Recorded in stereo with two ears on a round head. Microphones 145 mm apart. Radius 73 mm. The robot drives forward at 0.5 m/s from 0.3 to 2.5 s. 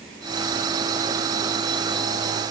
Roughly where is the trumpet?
I don't hear a trumpet.